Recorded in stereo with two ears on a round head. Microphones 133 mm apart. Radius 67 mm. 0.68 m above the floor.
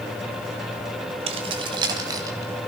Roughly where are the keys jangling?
Right.